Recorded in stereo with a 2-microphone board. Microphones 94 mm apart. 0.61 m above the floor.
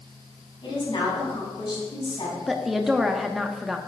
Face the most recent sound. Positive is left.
turn(degrees=0)  # may be behind; listen again after turning